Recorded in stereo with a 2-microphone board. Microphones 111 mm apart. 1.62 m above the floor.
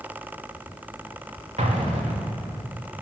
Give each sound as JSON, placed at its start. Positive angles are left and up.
{"t": 1.6, "sound": "an explosion", "side_deg": -85, "distance_m": 3.0}